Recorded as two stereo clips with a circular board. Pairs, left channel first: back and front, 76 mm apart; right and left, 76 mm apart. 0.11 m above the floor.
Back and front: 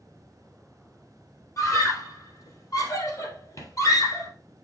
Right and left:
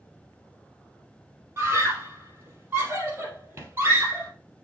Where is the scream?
145° left, 3 m.